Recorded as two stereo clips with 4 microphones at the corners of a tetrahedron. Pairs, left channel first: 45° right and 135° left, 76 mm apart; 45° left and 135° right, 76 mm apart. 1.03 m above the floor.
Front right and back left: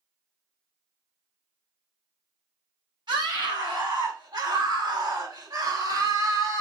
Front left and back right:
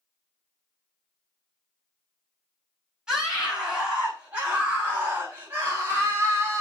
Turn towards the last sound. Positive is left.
turn(degrees=170)